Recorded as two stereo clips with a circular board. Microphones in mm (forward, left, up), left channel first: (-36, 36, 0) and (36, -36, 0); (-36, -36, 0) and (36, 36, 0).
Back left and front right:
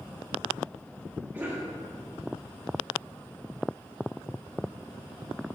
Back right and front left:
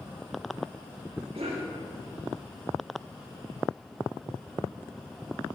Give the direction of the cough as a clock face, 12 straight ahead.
11 o'clock.